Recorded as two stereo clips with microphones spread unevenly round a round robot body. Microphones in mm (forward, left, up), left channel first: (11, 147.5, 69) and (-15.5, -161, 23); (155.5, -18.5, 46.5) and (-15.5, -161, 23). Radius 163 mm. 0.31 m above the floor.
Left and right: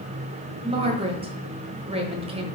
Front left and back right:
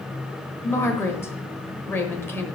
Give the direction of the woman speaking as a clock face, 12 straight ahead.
1 o'clock.